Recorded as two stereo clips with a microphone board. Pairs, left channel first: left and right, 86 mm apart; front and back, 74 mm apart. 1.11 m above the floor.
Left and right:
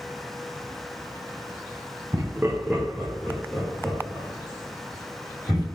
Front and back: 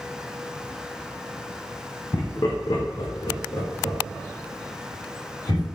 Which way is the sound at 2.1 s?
40° right.